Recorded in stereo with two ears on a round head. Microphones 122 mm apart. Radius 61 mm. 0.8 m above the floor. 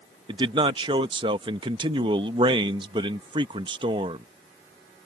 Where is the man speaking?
35° right (ahead or behind).